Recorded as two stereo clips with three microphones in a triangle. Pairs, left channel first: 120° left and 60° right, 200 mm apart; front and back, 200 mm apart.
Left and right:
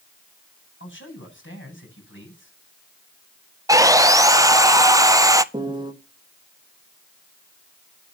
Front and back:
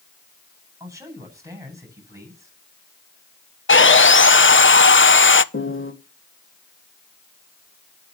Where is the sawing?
10° left, 0.7 m.